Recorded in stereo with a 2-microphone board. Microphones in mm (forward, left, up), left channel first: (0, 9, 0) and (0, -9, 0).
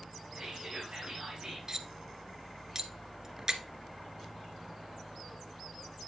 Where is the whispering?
40° right (ahead or behind), 3.5 m.